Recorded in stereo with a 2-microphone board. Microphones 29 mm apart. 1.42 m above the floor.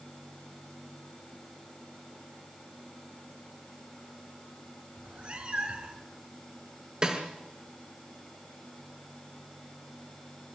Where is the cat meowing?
45° right (ahead or behind), 2.5 m.